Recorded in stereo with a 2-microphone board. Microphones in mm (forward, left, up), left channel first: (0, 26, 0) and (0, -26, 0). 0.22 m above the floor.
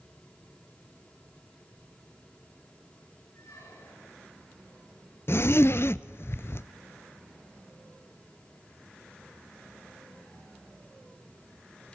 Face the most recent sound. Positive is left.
turn(degrees=55)  # may be behind; listen again after turning